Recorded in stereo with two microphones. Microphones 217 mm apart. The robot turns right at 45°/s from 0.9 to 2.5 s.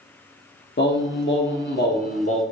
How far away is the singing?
About 0.8 m.